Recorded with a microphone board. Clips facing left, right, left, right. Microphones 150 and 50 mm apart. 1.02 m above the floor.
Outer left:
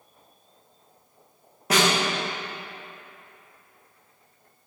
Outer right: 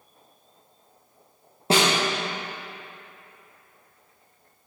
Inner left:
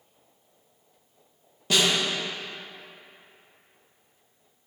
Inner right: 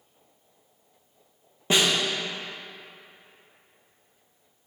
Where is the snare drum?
30° right (ahead or behind), 1.2 m.